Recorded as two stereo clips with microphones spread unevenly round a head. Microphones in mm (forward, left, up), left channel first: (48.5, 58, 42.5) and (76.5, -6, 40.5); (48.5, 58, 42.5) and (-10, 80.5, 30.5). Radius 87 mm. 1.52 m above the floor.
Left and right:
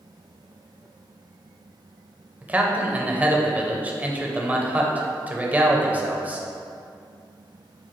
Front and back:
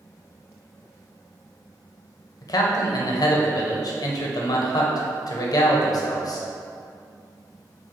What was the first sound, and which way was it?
A man speaking, 5° left.